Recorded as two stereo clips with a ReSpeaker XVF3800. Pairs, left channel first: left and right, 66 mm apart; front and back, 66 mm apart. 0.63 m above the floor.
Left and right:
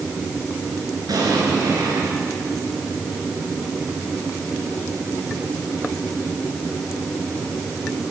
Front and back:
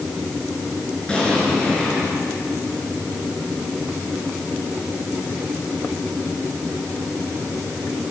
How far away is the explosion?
About 7.5 m.